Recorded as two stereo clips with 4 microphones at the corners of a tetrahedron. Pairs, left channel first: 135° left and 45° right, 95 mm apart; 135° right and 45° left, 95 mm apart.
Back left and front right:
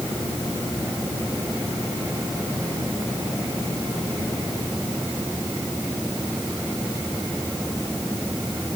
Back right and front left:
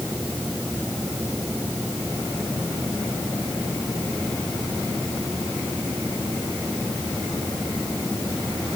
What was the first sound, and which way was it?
Only background noise.